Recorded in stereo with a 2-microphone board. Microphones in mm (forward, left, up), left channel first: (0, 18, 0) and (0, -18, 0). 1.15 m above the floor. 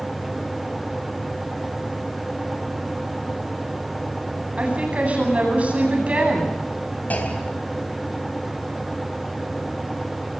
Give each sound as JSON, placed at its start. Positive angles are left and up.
{"t": 4.6, "sound": "a woman speaking", "side_deg": -40, "distance_m": 9.5}
{"t": 7.1, "sound": "a clunk", "side_deg": 50, "distance_m": 4.0}